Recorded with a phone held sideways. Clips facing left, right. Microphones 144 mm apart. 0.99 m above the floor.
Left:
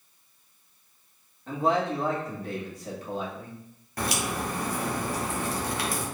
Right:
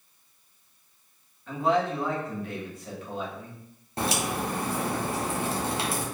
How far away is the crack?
About 0.8 m.